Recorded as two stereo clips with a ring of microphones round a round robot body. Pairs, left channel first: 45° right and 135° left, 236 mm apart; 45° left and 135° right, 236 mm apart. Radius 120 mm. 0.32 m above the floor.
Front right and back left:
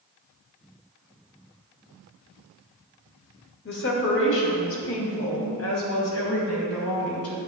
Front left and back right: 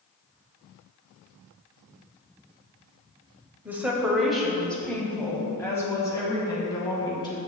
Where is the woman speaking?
55° right, 1.5 m; by 7.4 s 25° right, 3 m.